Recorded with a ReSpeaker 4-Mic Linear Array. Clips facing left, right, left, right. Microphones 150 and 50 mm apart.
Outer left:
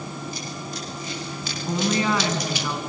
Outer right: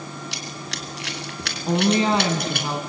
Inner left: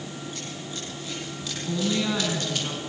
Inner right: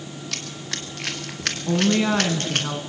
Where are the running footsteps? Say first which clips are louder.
Outer left 2 dB, inner right 3 dB; 85° right, 3 m; by 2.7 s 55° right (ahead or behind), 3.5 m.